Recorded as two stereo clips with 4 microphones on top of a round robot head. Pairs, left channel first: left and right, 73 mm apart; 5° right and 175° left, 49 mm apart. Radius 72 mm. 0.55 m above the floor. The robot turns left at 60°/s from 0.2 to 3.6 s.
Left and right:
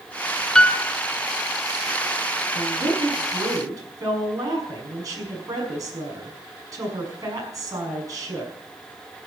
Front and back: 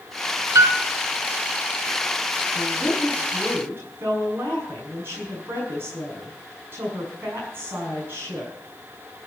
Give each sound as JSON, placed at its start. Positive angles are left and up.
{"t": 0.6, "sound": "a piano", "azimuth_deg": 175, "distance_m": 0.9}
{"t": 2.5, "sound": "a woman speaking", "azimuth_deg": -70, "distance_m": 5.5}